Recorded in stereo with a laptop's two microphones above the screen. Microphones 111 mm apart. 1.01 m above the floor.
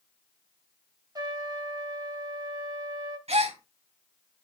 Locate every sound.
1.1 s a trumpet: 40° right (ahead or behind), 1.9 m
3.3 s a gasp: 70° right (ahead or behind), 1.7 m